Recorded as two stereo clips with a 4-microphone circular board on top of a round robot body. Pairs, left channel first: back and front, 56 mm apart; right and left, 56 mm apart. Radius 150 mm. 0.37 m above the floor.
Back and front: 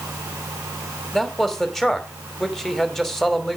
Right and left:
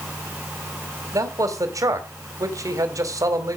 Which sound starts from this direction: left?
A man speaking, at 1.1 s.